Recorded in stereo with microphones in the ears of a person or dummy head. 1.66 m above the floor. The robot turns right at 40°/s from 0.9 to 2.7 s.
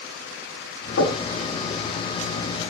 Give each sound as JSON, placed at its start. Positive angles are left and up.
{"t": 1.0, "sound": "knocking", "side_deg": 75, "distance_m": 9.5}